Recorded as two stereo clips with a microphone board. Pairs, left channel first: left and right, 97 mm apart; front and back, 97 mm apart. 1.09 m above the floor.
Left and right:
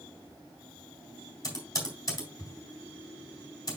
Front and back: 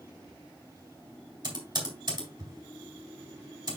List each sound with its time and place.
1.4 s typing on a keyboard: 145° left, 3.5 m